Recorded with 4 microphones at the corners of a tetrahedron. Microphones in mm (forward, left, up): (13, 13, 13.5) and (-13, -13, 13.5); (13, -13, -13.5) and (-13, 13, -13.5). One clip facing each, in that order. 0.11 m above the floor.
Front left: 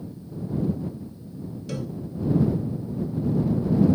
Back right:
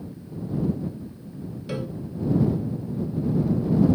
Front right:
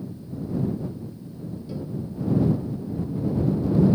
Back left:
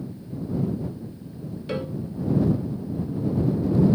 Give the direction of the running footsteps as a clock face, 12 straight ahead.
No running footsteps in this recording.